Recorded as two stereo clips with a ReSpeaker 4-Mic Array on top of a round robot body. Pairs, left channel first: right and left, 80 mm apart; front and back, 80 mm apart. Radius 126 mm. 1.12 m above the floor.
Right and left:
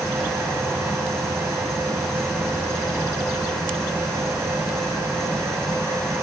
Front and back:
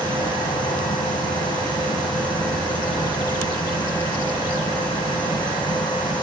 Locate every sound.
0.0 s an insect: 5° right, 1.0 m